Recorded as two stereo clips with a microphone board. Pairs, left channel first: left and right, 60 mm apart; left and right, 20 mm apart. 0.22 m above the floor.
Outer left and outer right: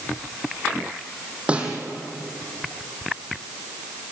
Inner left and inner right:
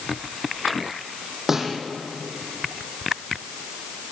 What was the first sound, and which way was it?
A snare drum, 20° right (ahead or behind).